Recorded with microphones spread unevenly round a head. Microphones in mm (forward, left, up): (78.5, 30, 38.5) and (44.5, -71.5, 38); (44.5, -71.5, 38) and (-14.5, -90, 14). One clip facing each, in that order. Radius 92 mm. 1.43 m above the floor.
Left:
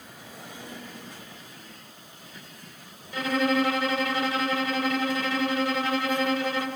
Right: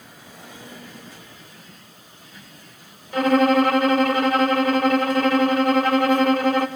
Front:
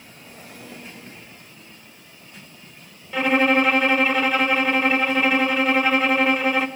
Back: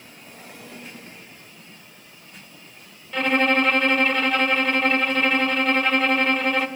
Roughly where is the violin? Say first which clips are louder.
Right 8 dB, front 2 dB; right.